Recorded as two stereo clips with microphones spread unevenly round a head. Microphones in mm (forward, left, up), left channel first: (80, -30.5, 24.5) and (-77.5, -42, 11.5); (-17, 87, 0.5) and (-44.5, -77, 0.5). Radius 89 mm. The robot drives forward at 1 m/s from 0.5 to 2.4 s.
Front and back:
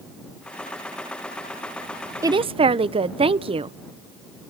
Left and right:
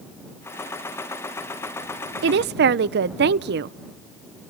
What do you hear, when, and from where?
2.2 s a woman speaking: 100° right, 0.6 m; by 3.8 s 120° right, 0.7 m